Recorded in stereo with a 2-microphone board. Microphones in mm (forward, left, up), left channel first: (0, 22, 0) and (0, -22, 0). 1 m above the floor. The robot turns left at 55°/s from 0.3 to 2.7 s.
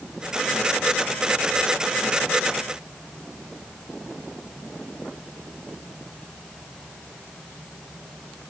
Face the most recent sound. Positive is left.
No sound to turn to.